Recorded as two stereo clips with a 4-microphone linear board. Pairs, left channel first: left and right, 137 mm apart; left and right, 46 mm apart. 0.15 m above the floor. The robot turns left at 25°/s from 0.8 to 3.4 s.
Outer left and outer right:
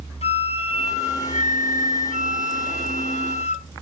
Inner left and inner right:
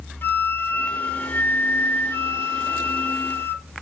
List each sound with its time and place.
0.2 s a flute: 125° left, 0.6 m; by 3.7 s 60° left, 0.6 m